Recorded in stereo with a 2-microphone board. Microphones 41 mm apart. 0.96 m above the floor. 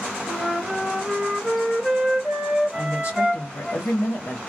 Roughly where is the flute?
Centre.